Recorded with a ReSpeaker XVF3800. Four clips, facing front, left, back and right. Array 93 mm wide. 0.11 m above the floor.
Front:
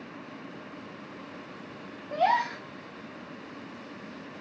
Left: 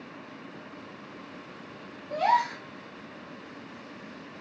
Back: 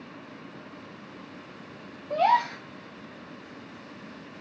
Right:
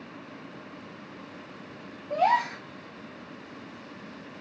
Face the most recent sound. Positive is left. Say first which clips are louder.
# right 1 dB, back 3 dB
turn(degrees=-150)